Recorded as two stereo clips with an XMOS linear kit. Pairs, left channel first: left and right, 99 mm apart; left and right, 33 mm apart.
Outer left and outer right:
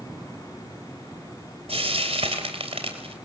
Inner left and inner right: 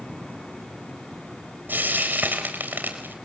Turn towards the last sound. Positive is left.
turn(degrees=-85)